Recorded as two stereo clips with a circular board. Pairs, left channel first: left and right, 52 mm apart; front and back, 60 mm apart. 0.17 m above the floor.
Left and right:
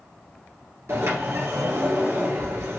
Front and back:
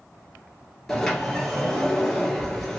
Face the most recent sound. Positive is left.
turn(degrees=-85)